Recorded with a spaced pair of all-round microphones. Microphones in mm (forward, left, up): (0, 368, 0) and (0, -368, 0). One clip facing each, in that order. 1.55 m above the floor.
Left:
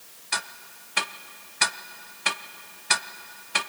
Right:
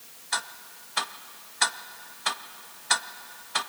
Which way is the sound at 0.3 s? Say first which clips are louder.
Left 1 dB; 55° left (ahead or behind).